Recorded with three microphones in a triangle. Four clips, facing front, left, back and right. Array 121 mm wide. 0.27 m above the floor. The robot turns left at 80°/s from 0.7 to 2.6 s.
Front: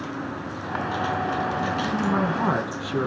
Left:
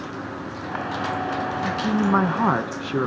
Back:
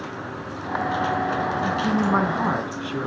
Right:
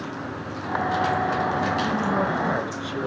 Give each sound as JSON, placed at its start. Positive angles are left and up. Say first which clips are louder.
{"t": 1.6, "sound": "a man speaking", "louder": "left 2 dB, back 3 dB", "azimuth_deg": 160, "distance_m": 3.0}